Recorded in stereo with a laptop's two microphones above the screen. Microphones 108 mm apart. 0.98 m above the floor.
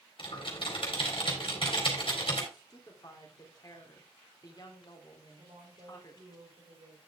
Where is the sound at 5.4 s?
55° right (ahead or behind), 3.5 m.